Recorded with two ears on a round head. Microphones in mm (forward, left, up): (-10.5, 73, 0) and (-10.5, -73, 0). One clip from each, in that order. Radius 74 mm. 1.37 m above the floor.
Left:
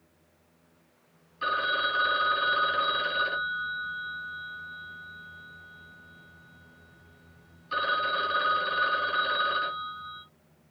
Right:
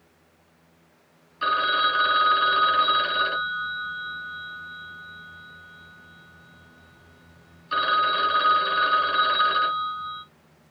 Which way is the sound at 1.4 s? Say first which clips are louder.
Right 5 dB; 25° right (ahead or behind).